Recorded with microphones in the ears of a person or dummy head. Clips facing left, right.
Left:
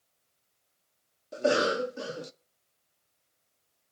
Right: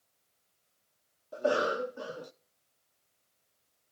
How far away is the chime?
I don't hear a chime.